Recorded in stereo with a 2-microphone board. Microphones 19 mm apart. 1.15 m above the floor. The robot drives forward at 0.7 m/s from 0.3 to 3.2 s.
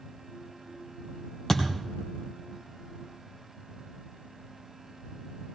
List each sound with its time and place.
1.5 s a thud: 25° left (ahead or behind), 2.5 m